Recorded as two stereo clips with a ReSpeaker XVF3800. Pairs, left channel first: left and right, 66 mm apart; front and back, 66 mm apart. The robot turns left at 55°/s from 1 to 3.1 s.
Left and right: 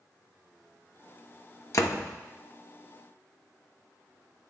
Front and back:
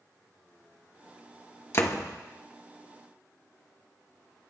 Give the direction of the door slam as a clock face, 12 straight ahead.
10 o'clock.